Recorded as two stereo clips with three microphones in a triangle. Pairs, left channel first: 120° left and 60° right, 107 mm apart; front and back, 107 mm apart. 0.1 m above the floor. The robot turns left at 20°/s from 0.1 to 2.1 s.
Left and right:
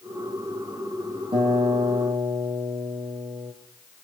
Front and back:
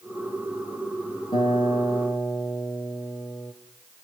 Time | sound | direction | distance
1.3 | a guitar | 35° right | 4 m